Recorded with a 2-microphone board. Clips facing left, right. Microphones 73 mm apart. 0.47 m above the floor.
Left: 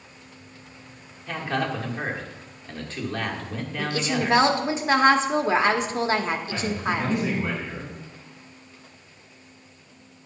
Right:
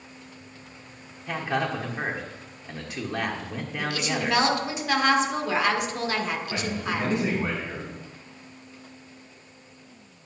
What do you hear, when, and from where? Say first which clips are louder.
1.3 s a man speaking: even; 10° right (ahead or behind), 1.2 m
3.8 s a woman speaking: left 3 dB; 30° left (ahead or behind), 0.9 m
6.5 s a man speaking: left 3 dB; 30° right (ahead or behind), 4.5 m